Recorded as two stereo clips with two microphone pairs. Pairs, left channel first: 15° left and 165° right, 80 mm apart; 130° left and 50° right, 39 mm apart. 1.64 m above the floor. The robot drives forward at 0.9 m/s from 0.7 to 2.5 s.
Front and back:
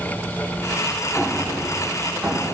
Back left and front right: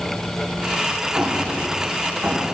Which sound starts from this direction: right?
An explosion, at 1.1 s.